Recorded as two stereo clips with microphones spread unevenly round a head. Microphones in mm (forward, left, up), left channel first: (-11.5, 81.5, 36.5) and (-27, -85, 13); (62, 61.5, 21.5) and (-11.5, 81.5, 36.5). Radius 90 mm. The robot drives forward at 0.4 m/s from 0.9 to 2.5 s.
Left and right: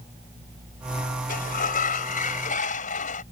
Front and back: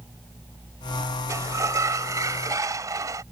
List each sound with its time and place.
1.3 s a sliding door: 120° left; by 3.2 s 125° left